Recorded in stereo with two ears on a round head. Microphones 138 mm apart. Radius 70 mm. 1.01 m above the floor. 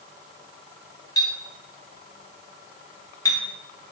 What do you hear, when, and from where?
1.2 s a clink: 25° left (ahead or behind), 0.8 m